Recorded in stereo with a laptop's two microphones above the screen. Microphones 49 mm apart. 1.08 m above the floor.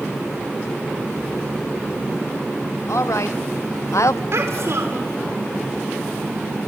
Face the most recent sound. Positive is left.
turn(degrees=-60)  # may be behind; listen again after turning